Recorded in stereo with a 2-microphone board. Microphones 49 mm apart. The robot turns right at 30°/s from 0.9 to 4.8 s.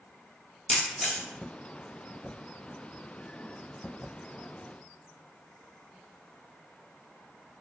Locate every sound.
0.7 s a camera shutter: centre (ahead or behind), 1.3 m; by 1.2 s 10° left (ahead or behind), 1.3 m